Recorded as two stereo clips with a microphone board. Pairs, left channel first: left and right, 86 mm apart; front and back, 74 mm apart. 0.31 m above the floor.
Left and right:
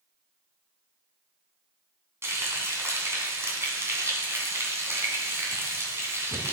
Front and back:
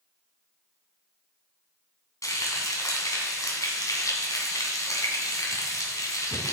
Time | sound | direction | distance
2.2 | frying | 35° right | 2.5 m